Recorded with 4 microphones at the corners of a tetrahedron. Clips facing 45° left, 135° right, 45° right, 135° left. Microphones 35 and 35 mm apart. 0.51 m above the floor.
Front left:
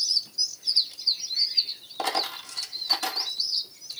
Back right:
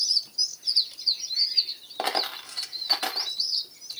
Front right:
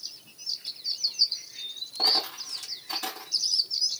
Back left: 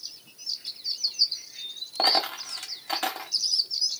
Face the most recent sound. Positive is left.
turn(degrees=160)